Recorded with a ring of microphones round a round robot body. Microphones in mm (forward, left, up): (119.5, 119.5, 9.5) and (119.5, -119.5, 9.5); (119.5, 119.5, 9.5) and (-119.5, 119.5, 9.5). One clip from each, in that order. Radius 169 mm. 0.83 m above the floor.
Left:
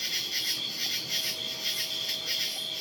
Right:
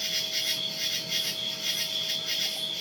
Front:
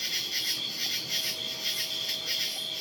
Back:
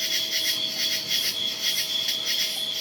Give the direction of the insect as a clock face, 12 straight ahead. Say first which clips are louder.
Right 1 dB, back 5 dB; 6 o'clock.